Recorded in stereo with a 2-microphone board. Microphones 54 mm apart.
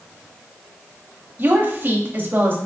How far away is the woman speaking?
About 0.7 m.